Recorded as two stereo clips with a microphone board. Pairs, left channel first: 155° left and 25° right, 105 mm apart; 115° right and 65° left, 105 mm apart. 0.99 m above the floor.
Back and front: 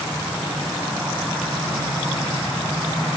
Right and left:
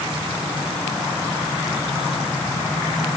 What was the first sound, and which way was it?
Only background noise.